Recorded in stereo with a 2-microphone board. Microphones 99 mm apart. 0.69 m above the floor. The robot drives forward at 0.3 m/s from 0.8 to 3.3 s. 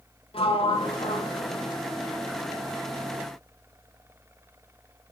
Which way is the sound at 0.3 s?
70° left (ahead or behind).